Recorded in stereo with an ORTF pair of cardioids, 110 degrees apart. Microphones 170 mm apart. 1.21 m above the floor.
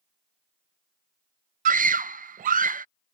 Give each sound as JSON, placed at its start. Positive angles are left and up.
{"t": 1.6, "sound": "a scream", "azimuth_deg": -55}